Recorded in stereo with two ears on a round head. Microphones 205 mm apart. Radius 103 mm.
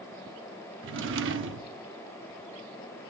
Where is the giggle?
I don't hear a giggle.